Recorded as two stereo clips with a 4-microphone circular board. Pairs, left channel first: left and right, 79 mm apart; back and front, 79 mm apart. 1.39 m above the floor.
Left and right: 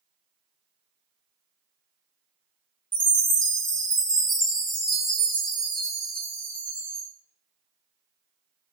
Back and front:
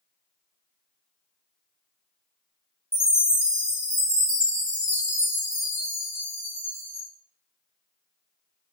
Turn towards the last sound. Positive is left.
turn(degrees=75)